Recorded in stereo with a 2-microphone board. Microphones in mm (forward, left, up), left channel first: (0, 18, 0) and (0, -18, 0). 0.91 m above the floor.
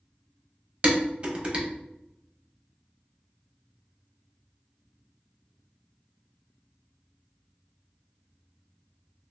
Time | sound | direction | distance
0.8 | dishes clattering | 35° right (ahead or behind) | 0.8 m